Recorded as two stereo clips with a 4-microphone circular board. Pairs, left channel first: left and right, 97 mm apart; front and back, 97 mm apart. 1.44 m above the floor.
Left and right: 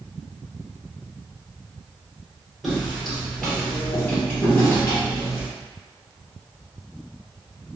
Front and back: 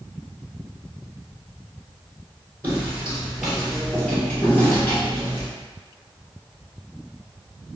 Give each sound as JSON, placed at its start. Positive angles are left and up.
{"t": 2.6, "sound": "footsteps", "azimuth_deg": -175, "distance_m": 1.5}